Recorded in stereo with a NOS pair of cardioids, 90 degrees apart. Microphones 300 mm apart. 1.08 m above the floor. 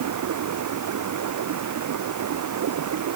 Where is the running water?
65° right.